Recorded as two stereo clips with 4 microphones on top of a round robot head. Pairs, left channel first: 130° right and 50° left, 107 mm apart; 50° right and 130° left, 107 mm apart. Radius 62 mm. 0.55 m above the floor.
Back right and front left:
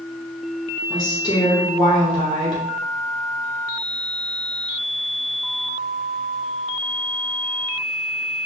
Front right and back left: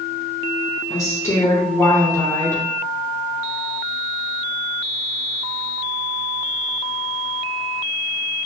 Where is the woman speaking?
100° right, 1.6 m.